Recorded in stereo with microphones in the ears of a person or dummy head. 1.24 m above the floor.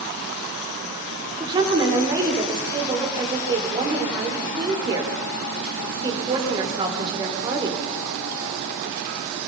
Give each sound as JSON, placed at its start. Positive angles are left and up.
{"t": 1.4, "sound": "a woman speaking", "side_deg": -30, "distance_m": 5.0}